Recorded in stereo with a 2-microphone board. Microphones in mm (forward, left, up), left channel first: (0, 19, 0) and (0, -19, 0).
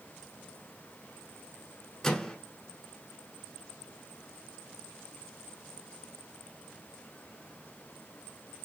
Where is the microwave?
15° left (ahead or behind), 0.8 m.